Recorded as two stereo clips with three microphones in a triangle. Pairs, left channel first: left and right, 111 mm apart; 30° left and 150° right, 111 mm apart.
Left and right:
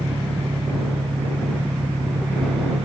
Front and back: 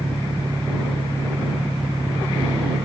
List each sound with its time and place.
0.0 s an engine running: 90° right